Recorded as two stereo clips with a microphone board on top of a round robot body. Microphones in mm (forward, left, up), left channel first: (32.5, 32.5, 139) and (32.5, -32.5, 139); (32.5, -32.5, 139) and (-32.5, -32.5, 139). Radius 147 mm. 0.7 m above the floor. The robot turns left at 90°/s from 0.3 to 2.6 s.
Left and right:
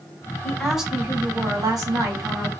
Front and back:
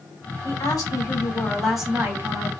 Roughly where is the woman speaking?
Ahead left.